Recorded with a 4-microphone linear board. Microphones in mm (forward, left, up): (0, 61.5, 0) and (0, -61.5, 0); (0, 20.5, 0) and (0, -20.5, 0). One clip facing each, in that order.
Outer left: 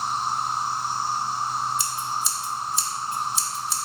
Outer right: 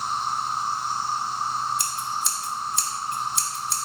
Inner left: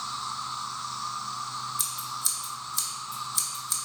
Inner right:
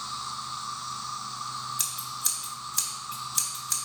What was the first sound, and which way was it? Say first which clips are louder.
An insect: outer left 1 dB, inner left 2 dB; 35° left (ahead or behind).